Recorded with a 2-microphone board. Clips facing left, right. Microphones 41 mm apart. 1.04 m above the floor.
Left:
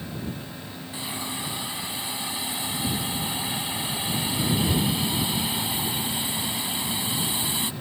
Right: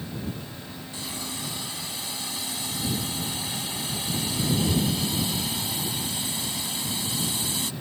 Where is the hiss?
20° left (ahead or behind).